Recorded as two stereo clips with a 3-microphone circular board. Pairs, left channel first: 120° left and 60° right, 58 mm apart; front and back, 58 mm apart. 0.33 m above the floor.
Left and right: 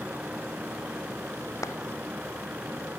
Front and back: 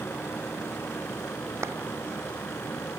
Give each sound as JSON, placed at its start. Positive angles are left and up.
{"t": 1.6, "sound": "a clap", "azimuth_deg": 145}